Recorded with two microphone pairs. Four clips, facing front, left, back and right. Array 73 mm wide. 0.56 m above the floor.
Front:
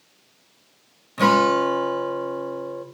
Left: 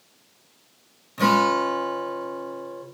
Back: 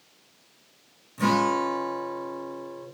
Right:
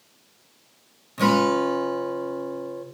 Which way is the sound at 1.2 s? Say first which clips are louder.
Even, front 6 dB; straight ahead.